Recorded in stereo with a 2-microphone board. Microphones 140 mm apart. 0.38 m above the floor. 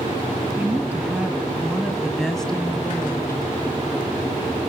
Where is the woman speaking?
15° right (ahead or behind), 4.5 m; by 3.4 s 20° left (ahead or behind), 2.5 m.